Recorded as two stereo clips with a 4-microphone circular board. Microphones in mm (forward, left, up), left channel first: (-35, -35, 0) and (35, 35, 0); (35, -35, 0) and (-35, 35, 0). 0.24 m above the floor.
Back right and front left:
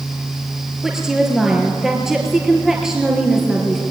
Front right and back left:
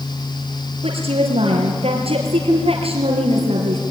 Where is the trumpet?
I don't hear a trumpet.